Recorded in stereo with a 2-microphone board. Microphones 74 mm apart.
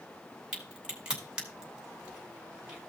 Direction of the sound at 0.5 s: 15° right (ahead or behind).